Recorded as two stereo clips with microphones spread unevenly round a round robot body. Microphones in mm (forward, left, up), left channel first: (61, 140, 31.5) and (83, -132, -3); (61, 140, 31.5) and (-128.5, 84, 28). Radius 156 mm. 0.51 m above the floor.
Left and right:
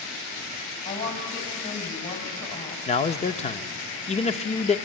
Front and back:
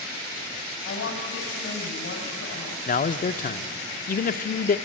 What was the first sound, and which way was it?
A woman speaking, 40° left.